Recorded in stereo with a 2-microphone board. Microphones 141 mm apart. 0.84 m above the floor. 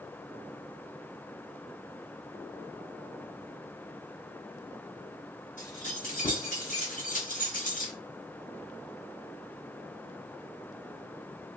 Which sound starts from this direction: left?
Keys jangling, at 5.6 s.